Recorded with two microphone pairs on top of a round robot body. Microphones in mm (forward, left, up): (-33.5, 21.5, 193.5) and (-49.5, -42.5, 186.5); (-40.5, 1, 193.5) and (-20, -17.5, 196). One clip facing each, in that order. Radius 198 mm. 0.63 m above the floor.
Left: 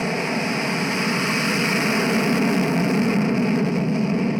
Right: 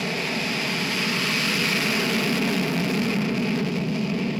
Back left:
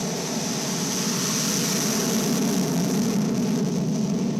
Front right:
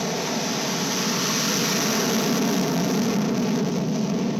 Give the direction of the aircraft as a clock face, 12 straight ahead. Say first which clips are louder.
Left 4 dB, front right 2 dB; 11 o'clock.